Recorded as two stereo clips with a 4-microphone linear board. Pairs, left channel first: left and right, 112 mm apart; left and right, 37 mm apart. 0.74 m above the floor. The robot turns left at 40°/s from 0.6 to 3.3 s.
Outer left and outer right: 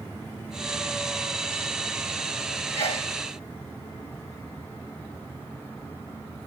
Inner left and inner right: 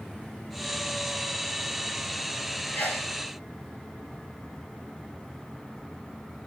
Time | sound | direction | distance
2.7 | a sneeze | 80° left | 8 m